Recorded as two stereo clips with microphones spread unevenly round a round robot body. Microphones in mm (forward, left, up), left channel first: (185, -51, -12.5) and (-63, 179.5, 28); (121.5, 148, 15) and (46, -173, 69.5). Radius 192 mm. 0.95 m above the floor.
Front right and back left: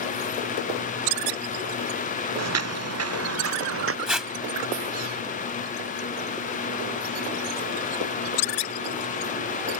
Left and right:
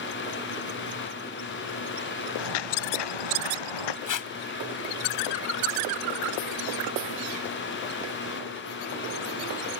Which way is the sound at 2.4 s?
95° left.